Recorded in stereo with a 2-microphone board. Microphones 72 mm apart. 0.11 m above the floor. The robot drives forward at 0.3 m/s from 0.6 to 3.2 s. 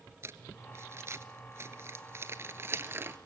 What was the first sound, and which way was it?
Crumpling, 40° right (ahead or behind).